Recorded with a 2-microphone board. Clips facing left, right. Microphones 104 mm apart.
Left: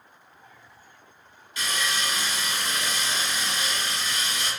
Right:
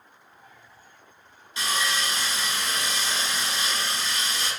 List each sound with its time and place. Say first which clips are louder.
1.6 s sawing: right 2 dB; 25° right (ahead or behind), 0.9 m